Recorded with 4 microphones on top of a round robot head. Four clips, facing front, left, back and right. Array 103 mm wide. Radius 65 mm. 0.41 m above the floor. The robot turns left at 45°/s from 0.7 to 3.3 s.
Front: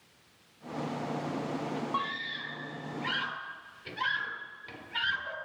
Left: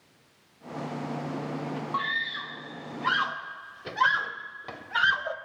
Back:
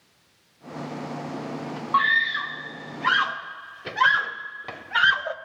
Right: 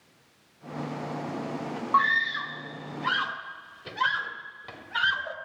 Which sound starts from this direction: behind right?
A scream, at 1.9 s.